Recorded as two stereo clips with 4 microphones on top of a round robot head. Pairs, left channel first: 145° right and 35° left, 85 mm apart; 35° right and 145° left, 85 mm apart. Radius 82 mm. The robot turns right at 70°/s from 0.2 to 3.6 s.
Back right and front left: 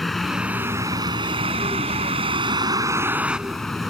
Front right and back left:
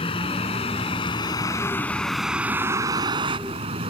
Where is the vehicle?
55° right; by 3.9 s 125° left.